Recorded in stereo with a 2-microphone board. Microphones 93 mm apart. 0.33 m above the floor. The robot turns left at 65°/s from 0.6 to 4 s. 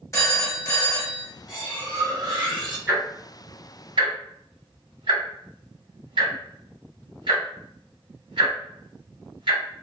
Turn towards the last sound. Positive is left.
turn(degrees=-65)  # may be behind; listen again after turning